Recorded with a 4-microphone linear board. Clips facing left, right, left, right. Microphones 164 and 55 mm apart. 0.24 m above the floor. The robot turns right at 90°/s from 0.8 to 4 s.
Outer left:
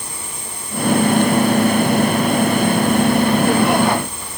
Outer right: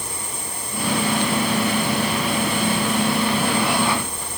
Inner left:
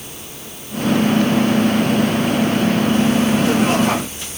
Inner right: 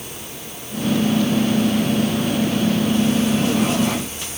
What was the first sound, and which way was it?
Only background noise.